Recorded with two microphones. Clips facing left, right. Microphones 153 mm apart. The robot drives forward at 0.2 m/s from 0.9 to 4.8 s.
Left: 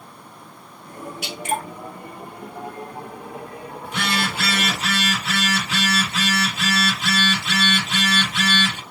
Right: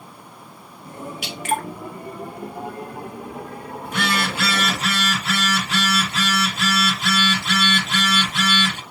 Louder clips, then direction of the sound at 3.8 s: Right 1 dB; 45° right (ahead or behind).